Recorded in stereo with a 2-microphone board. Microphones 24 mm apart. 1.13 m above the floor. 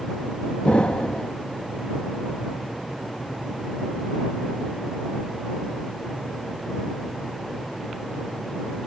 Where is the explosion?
60° left (ahead or behind).